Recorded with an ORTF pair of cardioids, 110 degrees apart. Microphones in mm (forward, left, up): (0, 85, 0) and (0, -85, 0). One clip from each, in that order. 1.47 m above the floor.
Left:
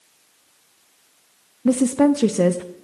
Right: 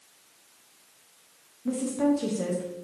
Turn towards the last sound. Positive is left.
turn(degrees=60)